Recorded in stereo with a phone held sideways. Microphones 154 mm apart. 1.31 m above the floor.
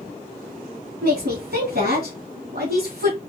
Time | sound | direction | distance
1.0 | a woman speaking | 75° right (ahead or behind) | 3 m